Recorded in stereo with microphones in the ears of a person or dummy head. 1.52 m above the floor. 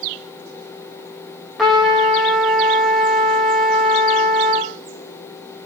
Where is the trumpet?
5° right (ahead or behind), 2.5 m.